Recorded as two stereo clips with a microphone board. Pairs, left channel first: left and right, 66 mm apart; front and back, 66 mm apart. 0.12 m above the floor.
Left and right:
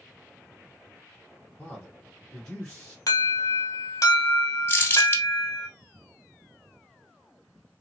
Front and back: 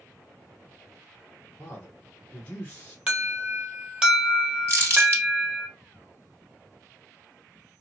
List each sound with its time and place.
1.6 s a man speaking: 20° left, 1.0 m
3.1 s an alarm: 110° left, 1.4 m
4.7 s crumpling: 140° left, 1.3 m